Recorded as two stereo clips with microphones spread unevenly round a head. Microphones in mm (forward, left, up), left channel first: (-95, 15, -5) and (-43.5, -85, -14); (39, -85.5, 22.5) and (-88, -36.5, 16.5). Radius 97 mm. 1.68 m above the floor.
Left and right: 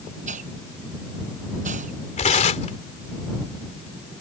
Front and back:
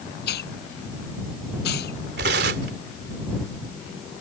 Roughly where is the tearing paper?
Behind left.